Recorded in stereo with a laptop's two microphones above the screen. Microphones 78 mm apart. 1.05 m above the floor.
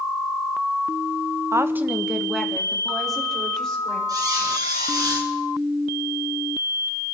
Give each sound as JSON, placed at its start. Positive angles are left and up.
{"t": 1.5, "sound": "a woman speaking", "side_deg": -40, "distance_m": 0.7}
{"t": 4.1, "sound": "a squeak", "side_deg": -55, "distance_m": 3.0}